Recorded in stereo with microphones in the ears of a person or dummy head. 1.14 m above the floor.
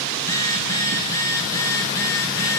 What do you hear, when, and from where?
0.2 s a phone buzzing: 20° left (ahead or behind), 2.5 m